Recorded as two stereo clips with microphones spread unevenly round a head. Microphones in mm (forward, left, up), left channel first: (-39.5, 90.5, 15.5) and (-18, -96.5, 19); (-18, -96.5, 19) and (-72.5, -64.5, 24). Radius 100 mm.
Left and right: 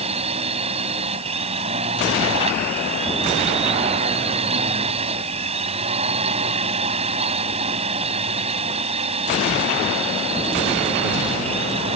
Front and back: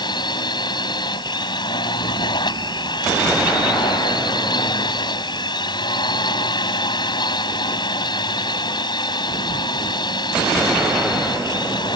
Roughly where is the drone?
Ahead.